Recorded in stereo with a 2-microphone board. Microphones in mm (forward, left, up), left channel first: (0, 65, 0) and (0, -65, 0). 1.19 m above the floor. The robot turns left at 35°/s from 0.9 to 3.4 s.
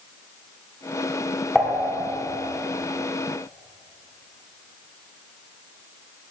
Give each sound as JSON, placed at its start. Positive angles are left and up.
{"t": 1.6, "sound": "dishes clattering", "side_deg": 0, "distance_m": 1.9}